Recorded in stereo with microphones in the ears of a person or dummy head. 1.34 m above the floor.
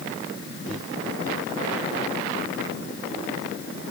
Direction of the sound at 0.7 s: 60° left (ahead or behind).